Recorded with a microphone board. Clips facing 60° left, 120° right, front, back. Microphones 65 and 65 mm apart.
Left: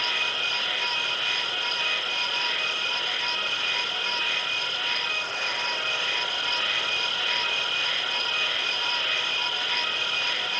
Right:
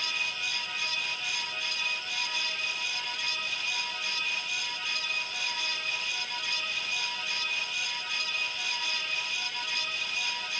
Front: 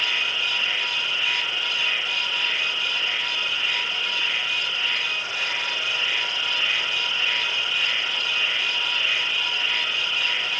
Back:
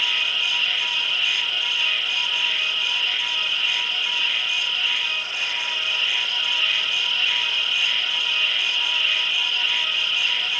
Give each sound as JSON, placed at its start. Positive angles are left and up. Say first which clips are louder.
{"t": 0.0, "sound": "an insect", "louder": "left 6 dB, back 1 dB", "azimuth_deg": 70}